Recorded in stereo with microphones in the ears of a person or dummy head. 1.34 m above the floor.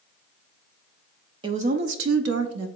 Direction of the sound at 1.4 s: 20° right (ahead or behind).